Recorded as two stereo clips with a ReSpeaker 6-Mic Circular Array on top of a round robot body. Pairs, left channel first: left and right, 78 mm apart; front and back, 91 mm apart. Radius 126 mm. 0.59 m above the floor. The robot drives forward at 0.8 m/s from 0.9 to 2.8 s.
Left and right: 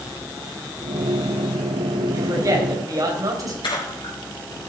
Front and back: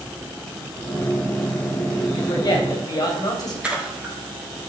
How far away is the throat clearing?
I don't hear throat clearing.